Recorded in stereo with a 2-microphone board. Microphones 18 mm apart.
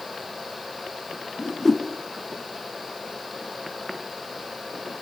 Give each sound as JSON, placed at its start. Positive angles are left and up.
{"t": 1.4, "sound": "a whoosh", "side_deg": 10, "distance_m": 1.3}